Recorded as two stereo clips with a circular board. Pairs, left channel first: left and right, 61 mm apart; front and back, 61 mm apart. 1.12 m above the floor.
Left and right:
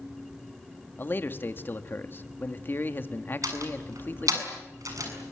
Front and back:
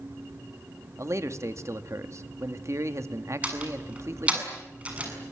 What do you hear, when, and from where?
1.0 s a man speaking: 145° left, 1.9 m
3.4 s a door slam: 110° right, 7 m